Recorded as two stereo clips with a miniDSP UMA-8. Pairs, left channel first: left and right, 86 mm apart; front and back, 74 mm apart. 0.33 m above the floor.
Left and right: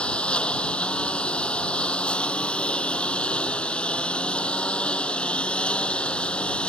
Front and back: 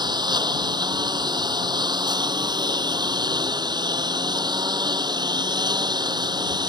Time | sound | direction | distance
0.0 | a lawn mower | 165° left | ?